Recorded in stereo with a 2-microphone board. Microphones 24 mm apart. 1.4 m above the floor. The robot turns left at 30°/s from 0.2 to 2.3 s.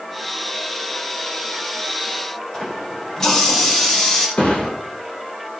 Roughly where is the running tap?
Left.